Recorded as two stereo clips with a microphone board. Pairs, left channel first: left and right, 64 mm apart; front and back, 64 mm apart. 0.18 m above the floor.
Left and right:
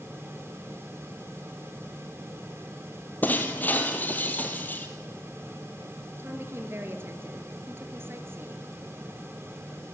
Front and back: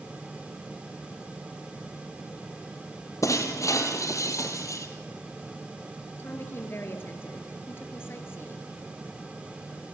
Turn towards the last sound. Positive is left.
turn(degrees=-45)